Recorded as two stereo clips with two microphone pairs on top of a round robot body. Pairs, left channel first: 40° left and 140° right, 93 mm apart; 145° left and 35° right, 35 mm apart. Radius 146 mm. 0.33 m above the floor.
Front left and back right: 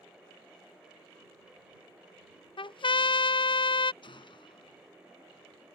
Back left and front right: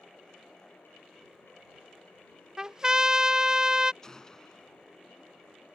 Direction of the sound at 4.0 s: 70° left.